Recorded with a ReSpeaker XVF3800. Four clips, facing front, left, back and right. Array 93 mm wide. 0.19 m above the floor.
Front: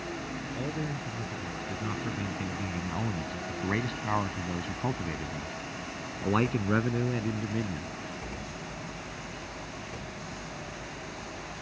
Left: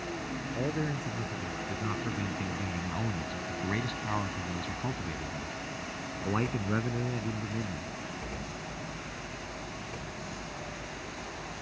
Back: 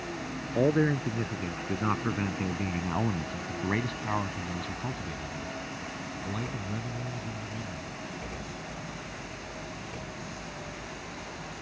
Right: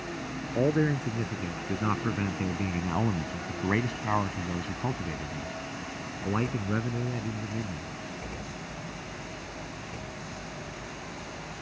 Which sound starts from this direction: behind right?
A man speaking, at 0.6 s.